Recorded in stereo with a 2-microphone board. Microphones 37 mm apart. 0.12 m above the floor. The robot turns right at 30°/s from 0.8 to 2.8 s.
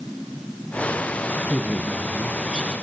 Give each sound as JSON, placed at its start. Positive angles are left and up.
{"t": 1.4, "sound": "a woman speaking", "side_deg": 5, "distance_m": 1.2}